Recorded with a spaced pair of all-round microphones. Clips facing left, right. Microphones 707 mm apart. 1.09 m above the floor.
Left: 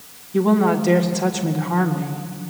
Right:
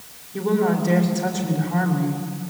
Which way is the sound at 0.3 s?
85° left.